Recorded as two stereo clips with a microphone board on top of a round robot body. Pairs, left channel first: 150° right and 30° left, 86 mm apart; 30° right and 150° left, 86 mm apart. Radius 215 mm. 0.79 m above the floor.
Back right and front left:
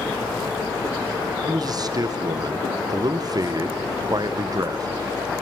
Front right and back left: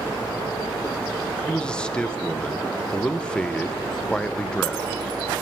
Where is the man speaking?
50° left, 0.6 m.